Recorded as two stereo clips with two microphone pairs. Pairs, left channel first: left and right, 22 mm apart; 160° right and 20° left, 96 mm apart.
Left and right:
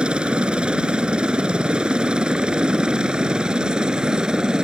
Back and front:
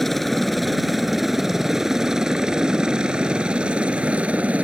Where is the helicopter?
70° right; by 4.7 s 50° right.